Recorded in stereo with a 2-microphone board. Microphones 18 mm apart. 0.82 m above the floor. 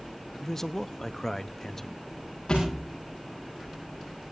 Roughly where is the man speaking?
Centre.